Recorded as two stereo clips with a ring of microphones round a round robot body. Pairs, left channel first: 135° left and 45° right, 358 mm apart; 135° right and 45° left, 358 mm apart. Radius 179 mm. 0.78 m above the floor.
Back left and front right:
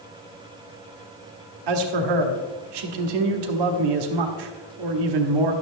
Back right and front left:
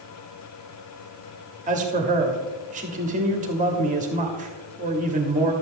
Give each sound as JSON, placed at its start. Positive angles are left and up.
{"t": 1.7, "sound": "a man speaking", "azimuth_deg": -25, "distance_m": 1.2}